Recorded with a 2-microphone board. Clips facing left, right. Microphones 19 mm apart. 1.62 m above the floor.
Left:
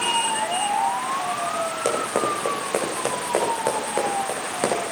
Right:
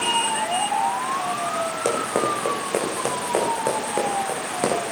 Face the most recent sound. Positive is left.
turn(degrees=5)  # may be behind; listen again after turning